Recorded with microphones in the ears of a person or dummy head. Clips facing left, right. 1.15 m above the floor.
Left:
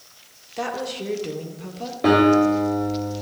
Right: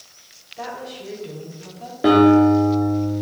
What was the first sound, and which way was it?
A woman speaking, 65° left (ahead or behind).